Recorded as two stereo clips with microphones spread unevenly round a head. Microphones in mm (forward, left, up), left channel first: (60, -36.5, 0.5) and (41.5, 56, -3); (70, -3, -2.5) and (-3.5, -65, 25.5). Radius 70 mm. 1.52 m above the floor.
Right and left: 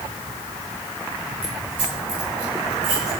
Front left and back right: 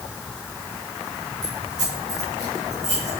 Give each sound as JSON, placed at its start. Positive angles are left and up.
{"t": 1.4, "sound": "keys jangling", "azimuth_deg": 160, "distance_m": 6.5}